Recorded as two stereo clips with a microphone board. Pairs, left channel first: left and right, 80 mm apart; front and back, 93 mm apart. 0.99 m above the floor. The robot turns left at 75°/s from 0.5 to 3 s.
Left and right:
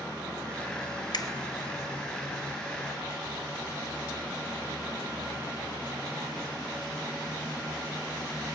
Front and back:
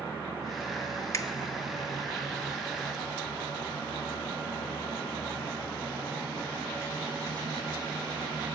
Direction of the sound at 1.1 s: 55° left.